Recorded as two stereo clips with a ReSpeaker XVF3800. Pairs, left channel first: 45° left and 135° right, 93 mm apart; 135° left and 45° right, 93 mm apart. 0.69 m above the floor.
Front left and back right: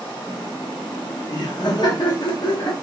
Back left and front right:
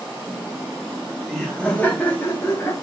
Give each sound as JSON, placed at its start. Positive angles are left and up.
{"t": 0.3, "sound": "laughter", "azimuth_deg": 0, "distance_m": 1.0}